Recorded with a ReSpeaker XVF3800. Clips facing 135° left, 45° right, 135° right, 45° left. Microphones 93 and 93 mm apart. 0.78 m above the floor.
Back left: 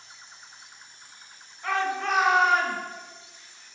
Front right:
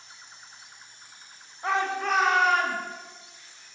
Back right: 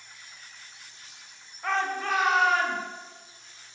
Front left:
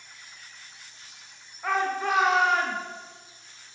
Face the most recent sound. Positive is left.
turn(degrees=95)